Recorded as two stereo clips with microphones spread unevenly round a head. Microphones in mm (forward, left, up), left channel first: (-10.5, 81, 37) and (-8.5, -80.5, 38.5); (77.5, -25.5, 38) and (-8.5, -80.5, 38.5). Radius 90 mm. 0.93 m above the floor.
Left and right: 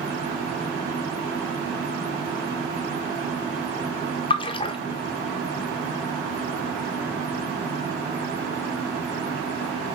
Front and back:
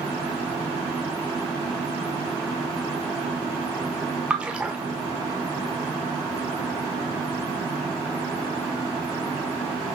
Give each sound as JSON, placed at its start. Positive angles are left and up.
{"t": 4.3, "sound": "a splash", "azimuth_deg": 135, "distance_m": 0.6}